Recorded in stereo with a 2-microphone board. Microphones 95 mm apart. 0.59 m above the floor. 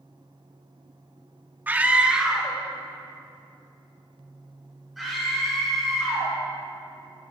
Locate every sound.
1.7 s a scream: 20° right (ahead or behind), 0.6 m; by 6.3 s centre (ahead or behind), 7.5 m